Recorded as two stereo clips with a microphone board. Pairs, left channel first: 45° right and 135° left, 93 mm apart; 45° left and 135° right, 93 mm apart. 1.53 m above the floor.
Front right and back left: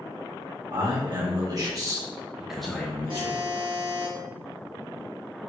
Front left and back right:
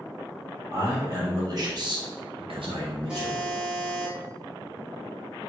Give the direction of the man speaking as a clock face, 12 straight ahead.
6 o'clock.